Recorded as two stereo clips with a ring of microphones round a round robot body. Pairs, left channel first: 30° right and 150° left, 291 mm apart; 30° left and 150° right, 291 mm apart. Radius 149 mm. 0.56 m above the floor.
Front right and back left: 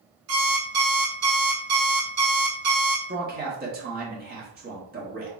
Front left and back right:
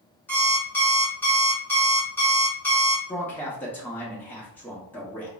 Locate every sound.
0.3 s an alarm clock: 115° left, 1.3 m
3.1 s a man speaking: 110° left, 0.9 m